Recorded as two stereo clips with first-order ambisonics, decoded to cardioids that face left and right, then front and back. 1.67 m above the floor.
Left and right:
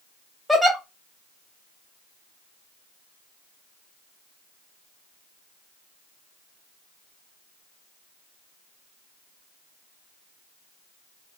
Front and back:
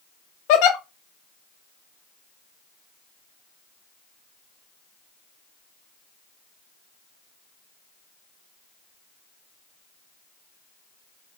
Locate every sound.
0.5 s a giggle: straight ahead, 0.6 m